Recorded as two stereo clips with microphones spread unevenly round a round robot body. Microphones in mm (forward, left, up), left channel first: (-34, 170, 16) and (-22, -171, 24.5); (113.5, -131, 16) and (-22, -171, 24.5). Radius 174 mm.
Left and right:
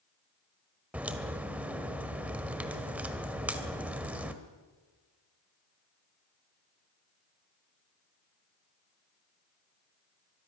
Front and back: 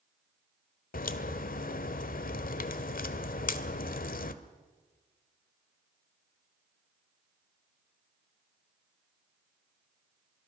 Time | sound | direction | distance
0.9 | a crack | straight ahead | 1.2 m